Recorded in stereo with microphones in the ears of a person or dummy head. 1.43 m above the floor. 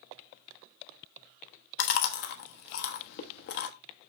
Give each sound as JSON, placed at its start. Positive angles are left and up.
{"t": 1.8, "sound": "chewing", "side_deg": 50, "distance_m": 1.0}